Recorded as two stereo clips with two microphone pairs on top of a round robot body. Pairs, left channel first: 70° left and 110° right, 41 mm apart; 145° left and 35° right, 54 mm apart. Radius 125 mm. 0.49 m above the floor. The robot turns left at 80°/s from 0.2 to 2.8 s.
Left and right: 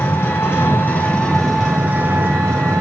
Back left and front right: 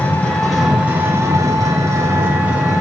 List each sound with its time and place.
0.0 s an engine running: 85° left, 4 m; by 2.8 s 125° right, 4 m